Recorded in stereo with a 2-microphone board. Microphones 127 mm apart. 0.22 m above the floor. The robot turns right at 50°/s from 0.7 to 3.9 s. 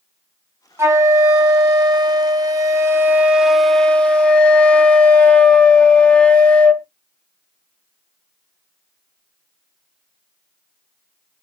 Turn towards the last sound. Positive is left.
turn(degrees=15)